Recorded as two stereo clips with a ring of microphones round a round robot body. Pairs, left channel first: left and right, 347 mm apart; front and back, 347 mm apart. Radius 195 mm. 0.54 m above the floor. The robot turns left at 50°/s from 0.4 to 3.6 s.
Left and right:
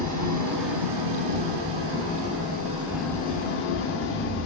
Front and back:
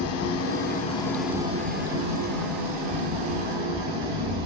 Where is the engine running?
50° right, 1.6 m; by 4.5 s 150° left, 1.6 m.